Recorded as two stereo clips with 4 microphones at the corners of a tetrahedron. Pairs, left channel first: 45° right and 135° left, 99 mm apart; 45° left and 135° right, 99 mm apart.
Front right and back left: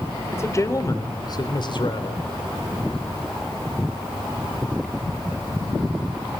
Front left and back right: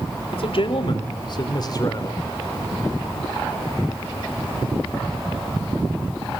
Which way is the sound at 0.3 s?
20° left.